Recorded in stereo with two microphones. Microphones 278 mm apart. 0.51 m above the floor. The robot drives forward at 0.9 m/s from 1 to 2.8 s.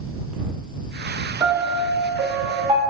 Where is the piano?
10° right (ahead or behind), 3.5 m; by 2.8 s 15° right (ahead or behind), 2.5 m.